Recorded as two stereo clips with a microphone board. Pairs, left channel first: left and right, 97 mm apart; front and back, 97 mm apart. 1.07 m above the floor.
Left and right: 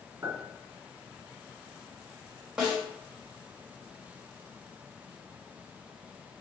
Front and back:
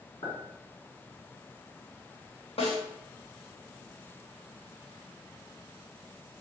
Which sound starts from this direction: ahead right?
A clink, at 0.2 s.